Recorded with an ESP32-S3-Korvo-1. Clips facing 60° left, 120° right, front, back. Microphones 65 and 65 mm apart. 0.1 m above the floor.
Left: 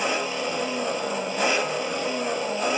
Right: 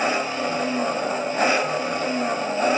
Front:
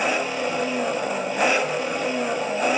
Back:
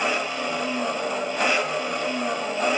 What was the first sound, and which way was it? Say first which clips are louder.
An engine running: right 3 dB, front 2 dB; 75° right.